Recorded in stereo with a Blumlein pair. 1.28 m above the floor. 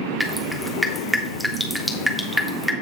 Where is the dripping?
Straight ahead, 1.3 m.